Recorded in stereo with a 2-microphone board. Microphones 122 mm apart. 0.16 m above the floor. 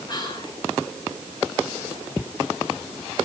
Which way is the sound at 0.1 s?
35° left (ahead or behind).